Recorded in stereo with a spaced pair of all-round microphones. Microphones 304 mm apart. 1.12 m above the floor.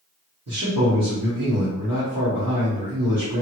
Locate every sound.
0.5 s a man speaking: 60° right (ahead or behind), 1.4 m